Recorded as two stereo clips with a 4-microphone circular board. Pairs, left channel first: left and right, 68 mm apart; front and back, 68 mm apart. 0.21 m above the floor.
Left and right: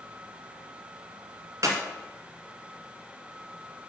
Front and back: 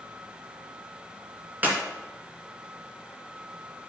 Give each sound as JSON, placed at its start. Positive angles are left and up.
{"t": 1.6, "sound": "a clap", "azimuth_deg": -120, "distance_m": 1.8}